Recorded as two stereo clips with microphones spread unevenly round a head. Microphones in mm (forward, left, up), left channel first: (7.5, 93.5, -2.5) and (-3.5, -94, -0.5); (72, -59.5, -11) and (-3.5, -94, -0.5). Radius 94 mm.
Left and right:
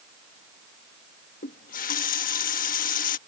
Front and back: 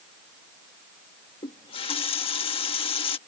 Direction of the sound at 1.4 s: 40° left.